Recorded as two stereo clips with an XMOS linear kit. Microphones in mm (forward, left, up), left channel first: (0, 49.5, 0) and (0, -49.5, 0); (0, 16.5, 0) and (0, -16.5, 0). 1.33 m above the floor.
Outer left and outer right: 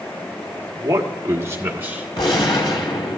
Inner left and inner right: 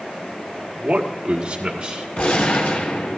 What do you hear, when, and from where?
0.8 s a man speaking: 40° right (ahead or behind), 1.2 m; by 2.1 s 20° right (ahead or behind), 1.9 m
2.2 s a gunshot: 60° left (ahead or behind), 2.5 m